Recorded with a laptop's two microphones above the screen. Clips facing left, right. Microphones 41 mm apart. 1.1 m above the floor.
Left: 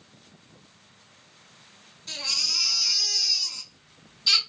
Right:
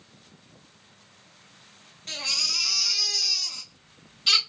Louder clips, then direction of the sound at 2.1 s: Right 1 dB; 55° right (ahead or behind).